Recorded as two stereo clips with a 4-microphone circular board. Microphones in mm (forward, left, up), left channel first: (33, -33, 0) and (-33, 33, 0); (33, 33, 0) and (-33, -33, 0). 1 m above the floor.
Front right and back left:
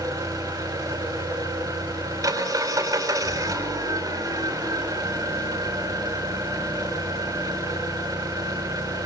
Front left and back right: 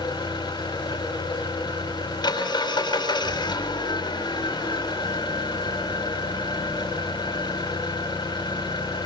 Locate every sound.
0.0 s an engine running: 85° left, 5 m